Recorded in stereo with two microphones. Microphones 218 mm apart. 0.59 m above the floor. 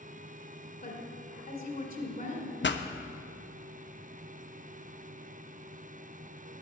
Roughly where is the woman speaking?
Left.